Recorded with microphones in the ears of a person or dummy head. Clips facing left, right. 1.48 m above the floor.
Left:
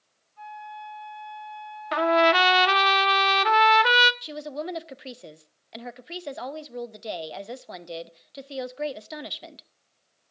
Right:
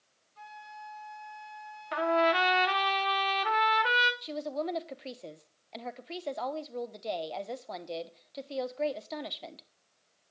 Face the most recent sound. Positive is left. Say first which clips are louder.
# left 1 dB
turn(degrees=20)  # may be behind; listen again after turning